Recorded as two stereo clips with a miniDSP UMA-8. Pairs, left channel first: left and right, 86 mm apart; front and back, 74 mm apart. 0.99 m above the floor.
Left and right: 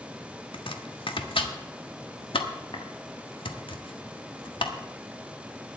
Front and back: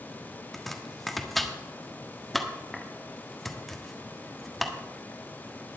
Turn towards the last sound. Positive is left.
turn(degrees=90)